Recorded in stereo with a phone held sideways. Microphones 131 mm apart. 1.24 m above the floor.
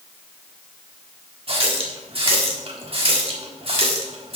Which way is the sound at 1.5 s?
45° right (ahead or behind).